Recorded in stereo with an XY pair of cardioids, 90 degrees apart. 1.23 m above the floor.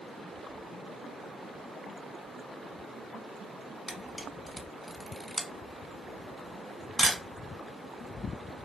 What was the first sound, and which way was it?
A camera shutter, straight ahead.